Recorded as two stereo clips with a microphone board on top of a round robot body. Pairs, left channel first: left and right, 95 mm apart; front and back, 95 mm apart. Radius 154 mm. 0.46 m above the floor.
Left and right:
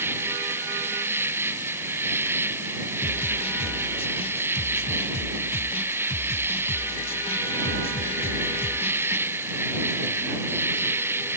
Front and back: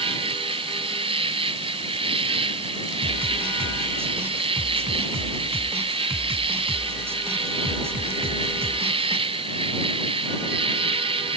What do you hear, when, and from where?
0.0 s an insect: 155° right
3.0 s a snare drum: 115° left